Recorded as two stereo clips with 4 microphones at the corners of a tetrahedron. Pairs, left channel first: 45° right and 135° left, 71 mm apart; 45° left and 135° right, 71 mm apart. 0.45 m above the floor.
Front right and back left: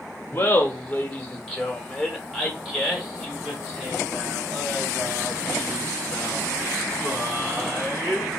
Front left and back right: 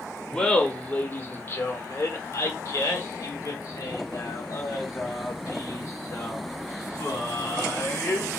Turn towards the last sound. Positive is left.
turn(degrees=65)